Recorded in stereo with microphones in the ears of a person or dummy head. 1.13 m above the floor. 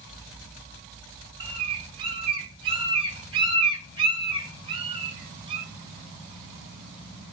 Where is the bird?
25° right (ahead or behind), 0.7 m.